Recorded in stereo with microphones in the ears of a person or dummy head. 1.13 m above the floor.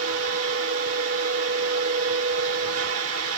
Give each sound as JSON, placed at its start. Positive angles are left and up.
{"t": 0.0, "sound": "a fan", "side_deg": -75, "distance_m": 4.0}